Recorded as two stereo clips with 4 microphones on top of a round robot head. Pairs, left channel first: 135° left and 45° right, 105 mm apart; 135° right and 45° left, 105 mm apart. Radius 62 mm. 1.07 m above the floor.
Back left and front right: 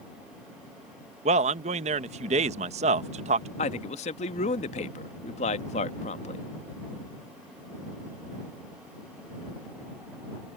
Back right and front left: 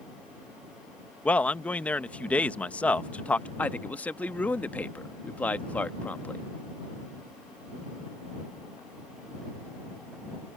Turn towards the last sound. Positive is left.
turn(degrees=150)